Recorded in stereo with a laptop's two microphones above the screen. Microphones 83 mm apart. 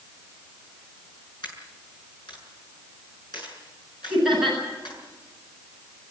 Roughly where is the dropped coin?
Left.